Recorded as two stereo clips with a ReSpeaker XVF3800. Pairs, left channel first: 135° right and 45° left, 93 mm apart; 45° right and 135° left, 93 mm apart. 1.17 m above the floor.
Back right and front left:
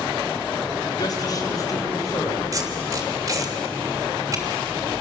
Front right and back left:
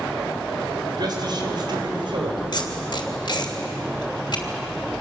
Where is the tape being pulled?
10° right, 3 m.